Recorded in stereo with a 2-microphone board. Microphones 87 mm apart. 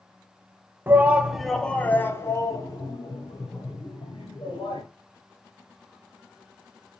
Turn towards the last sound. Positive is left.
turn(degrees=55)  # may be behind; listen again after turning